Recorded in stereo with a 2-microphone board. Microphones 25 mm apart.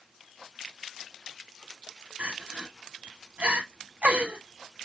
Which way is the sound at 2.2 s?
60° right (ahead or behind).